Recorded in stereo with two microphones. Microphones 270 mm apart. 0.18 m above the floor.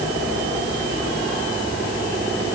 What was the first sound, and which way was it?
Only background noise.